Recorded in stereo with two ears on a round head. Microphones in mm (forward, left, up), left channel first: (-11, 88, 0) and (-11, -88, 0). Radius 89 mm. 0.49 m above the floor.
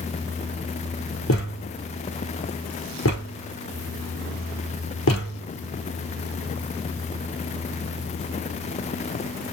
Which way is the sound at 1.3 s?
75° left (ahead or behind).